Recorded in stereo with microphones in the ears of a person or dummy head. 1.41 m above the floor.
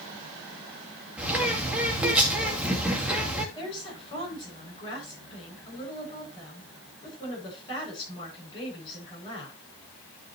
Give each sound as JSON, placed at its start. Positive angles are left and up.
{"t": 1.2, "sound": "a bird", "side_deg": -5, "distance_m": 2.5}
{"t": 3.5, "sound": "a woman speaking", "side_deg": 30, "distance_m": 8.5}